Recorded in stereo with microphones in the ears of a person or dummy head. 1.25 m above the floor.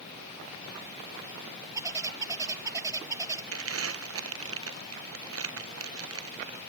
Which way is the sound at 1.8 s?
20° right (ahead or behind).